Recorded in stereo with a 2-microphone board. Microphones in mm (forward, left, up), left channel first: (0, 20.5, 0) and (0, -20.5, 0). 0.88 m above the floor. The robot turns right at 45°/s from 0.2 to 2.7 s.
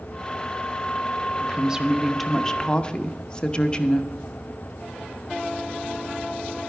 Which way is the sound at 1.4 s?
35° right.